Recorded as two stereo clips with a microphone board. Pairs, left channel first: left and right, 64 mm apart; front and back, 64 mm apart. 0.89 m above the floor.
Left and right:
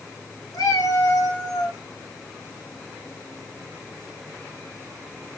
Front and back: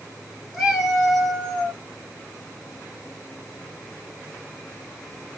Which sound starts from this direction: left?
A cat meowing, at 0.5 s.